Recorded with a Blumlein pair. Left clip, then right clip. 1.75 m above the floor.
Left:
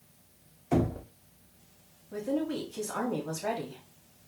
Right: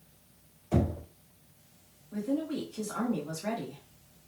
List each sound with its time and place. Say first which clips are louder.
0.7 s knocking: left 2 dB; 35° left, 1.5 m
2.1 s a woman speaking: left 1 dB; 60° left, 1.6 m